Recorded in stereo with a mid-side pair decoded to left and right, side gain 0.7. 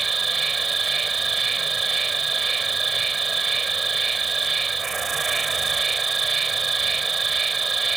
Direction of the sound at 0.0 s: 20° right.